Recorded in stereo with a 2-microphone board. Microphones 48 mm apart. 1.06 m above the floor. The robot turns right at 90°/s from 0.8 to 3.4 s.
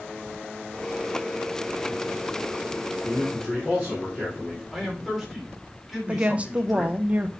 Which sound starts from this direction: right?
A woman speaking, at 6.1 s.